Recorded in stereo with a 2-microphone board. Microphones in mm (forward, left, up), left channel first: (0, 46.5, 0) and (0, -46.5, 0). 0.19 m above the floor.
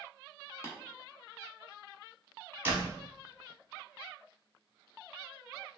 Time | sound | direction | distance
0.6 | tapping | 30° left (ahead or behind) | 1.0 m
2.6 | a door slam | 25° right (ahead or behind) | 0.7 m